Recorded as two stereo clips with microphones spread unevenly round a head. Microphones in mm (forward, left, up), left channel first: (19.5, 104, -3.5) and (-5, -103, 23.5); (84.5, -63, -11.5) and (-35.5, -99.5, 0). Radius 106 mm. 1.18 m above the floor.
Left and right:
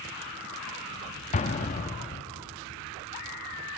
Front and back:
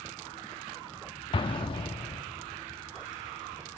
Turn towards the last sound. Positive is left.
turn(degrees=35)